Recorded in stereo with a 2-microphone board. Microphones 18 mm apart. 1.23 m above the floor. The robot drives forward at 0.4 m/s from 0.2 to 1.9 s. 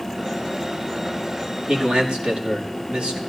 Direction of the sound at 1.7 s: 80° right.